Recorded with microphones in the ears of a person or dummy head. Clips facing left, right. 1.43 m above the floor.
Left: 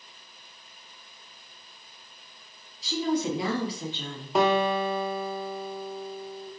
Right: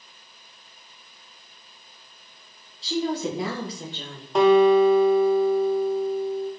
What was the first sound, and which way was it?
A woman speaking, 25° right (ahead or behind).